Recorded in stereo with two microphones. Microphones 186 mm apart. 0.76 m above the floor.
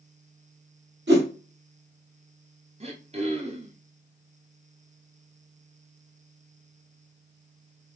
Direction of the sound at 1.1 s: 65° right (ahead or behind).